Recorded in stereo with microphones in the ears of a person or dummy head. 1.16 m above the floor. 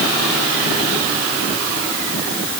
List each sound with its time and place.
Only background noise.